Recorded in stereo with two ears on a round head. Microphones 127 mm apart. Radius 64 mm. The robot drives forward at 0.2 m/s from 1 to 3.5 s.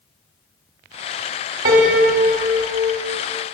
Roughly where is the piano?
Right.